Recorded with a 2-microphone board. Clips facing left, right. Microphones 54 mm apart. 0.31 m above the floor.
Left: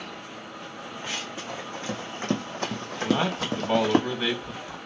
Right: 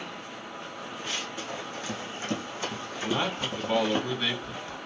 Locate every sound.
1.0 s running footsteps: 25° left (ahead or behind), 1.6 m; by 4.0 s 75° left (ahead or behind), 1.1 m
3.0 s a man speaking: 20° left (ahead or behind), 2 m